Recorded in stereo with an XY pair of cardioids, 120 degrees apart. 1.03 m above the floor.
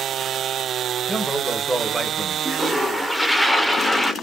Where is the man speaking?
15° right, 0.8 m.